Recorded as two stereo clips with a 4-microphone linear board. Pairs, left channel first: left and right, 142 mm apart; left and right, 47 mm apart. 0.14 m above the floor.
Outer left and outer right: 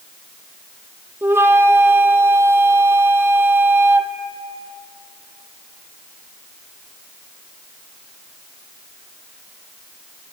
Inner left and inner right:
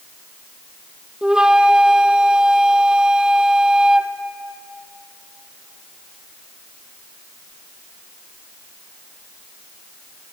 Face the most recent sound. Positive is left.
turn(degrees=-15)  # may be behind; listen again after turning